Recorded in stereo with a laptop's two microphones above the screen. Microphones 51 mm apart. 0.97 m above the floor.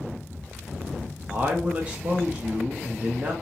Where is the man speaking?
25° right (ahead or behind), 0.7 m.